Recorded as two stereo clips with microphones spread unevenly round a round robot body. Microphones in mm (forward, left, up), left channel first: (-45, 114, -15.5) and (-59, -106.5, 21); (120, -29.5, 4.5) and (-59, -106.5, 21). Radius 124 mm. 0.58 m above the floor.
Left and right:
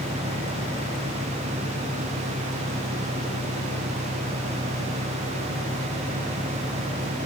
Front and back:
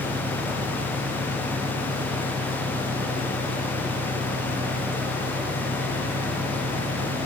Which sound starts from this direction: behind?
An engine running, at 0.0 s.